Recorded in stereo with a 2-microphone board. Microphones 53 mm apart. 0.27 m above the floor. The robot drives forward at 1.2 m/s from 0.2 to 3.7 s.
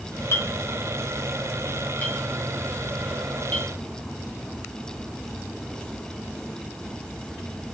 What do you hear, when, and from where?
0.3 s a clink: 50° left (ahead or behind), 2.5 m; by 3.7 s 20° left (ahead or behind), 6 m